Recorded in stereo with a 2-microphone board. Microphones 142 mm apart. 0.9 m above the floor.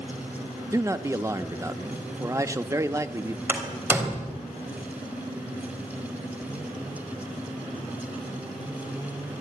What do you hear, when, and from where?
0.7 s a man speaking: 20° right (ahead or behind), 0.9 m
3.5 s a door slam: 15° right (ahead or behind), 3 m